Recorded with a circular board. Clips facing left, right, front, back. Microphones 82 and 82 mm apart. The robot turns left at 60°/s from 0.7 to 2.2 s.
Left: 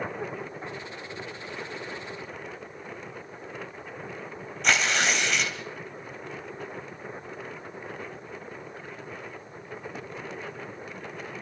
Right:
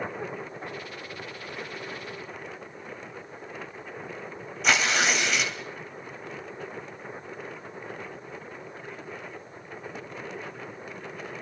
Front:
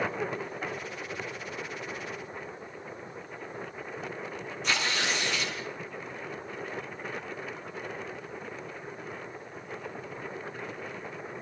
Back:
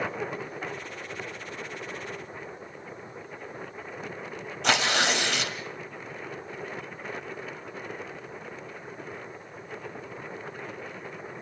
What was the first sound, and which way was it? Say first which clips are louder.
Tearing paper: right 1 dB, back 6 dB; 175° right.